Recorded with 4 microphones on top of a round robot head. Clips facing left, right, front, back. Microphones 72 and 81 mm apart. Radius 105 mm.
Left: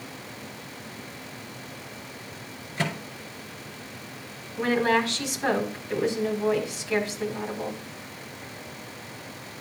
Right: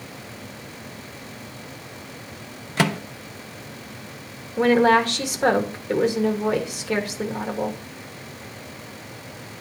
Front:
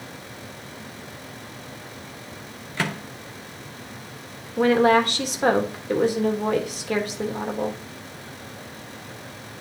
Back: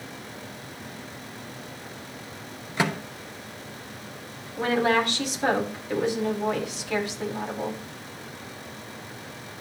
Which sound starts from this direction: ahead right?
A woman speaking, at 4.6 s.